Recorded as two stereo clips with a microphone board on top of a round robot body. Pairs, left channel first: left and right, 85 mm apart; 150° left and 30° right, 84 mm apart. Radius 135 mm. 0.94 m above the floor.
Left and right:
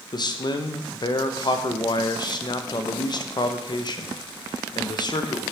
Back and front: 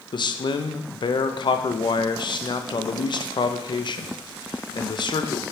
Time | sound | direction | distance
0.1 | a man speaking | 125° left | 0.9 m